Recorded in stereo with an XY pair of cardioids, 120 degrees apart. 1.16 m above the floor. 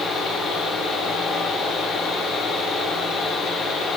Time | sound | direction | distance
0.0 | a fan | 70° left | 2.5 m